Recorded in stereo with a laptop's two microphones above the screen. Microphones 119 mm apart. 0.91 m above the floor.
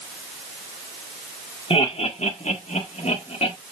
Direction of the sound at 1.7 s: 55° left (ahead or behind).